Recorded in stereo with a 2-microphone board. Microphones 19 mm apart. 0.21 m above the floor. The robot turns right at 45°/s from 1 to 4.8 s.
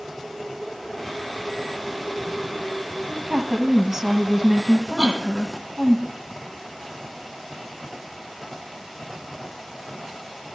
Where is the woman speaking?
25° right (ahead or behind), 1.6 m; by 6.0 s 20° right (ahead or behind), 1.6 m.